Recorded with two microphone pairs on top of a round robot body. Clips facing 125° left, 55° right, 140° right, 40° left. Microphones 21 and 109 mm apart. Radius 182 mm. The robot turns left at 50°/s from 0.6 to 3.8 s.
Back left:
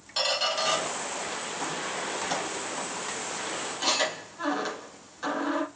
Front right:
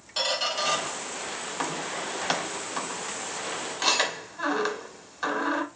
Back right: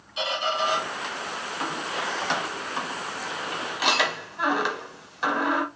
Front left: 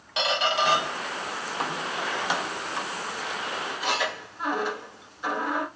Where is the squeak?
40° left, 1.0 m; by 5.7 s 120° right, 1.0 m.